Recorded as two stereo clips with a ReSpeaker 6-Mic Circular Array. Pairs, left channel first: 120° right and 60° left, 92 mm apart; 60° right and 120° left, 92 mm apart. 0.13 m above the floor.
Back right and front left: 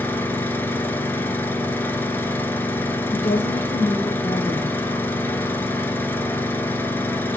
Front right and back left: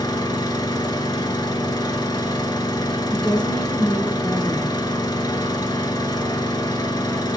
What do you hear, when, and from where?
0.0 s an engine running: 60° right, 1.0 m
3.1 s a woman speaking: 130° right, 1.1 m